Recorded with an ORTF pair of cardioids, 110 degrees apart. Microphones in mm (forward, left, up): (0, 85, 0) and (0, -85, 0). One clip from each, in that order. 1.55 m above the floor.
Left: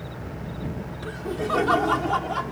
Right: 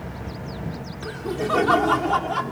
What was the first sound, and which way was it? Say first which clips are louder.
Laughter: right 2 dB; 5° right.